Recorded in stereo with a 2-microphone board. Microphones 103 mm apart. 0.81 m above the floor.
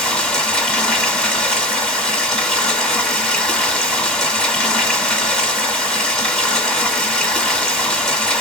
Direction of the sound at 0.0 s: 10° left (ahead or behind).